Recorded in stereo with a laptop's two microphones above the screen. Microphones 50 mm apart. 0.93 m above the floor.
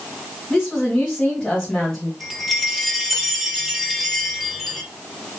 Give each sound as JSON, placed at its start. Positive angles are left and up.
{"t": 0.5, "sound": "a woman speaking", "side_deg": 10, "distance_m": 1.6}
{"t": 2.2, "sound": "a chime", "side_deg": -5, "distance_m": 1.2}